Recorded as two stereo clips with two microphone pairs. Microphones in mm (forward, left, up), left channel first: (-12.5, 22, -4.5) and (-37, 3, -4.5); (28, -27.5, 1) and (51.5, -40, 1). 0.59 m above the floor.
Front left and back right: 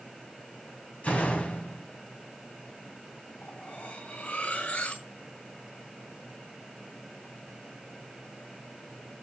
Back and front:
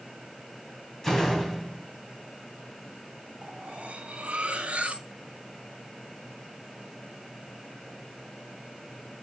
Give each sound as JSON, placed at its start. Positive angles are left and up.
{"t": 1.0, "sound": "a door slam", "azimuth_deg": 75, "distance_m": 2.5}
{"t": 3.4, "sound": "cutlery clinking", "azimuth_deg": 10, "distance_m": 3.0}